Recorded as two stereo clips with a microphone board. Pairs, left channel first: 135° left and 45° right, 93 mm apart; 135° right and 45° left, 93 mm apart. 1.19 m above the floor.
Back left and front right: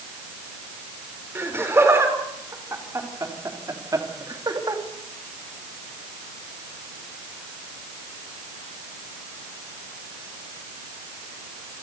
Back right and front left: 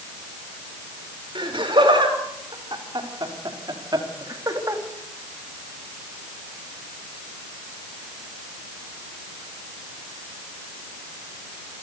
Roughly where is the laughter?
Ahead.